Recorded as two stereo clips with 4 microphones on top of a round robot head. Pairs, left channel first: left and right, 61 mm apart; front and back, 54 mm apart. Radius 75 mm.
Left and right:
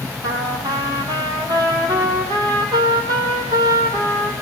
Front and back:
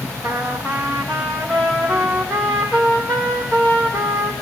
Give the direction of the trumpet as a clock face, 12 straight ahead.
2 o'clock.